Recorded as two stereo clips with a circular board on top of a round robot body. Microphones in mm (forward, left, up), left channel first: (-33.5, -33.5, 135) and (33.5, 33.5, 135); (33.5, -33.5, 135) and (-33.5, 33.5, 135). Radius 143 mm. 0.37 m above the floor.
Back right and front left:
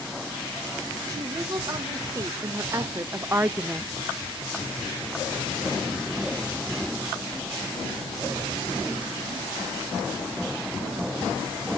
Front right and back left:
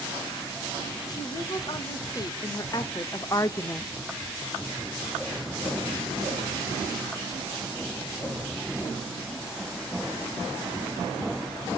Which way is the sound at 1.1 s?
Straight ahead.